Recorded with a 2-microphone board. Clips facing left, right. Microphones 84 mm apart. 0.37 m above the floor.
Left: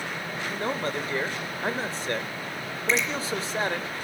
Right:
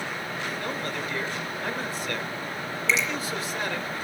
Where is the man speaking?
30° left (ahead or behind), 0.9 m.